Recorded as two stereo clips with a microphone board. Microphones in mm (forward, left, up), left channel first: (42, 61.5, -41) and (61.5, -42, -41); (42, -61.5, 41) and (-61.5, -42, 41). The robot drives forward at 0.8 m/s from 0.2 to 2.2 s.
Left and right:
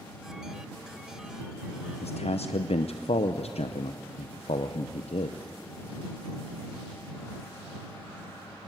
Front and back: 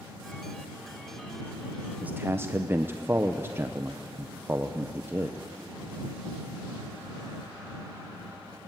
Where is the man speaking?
90° left, 0.7 m; by 5.4 s 105° left, 0.7 m.